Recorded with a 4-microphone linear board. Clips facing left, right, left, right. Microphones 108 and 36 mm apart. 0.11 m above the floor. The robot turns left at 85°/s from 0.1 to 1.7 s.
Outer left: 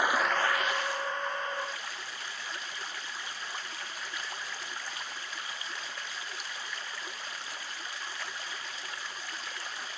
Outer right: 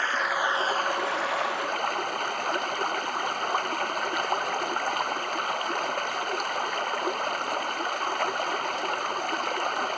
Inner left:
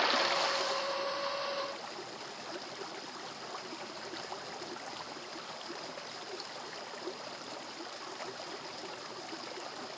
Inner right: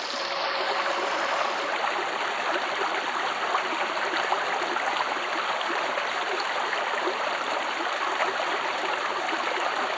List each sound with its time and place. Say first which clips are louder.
0.0 s running water: outer right 1 dB, inner right 1 dB; 15° left; by 10.0 s 125° right